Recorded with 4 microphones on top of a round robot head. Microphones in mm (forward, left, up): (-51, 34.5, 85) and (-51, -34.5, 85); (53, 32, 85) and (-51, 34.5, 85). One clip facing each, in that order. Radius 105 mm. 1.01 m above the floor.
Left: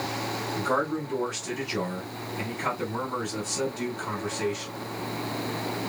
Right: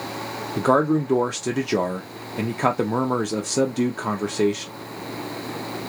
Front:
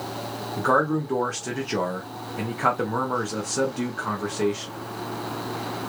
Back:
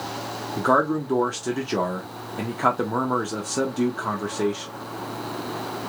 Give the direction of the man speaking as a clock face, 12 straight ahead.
3 o'clock.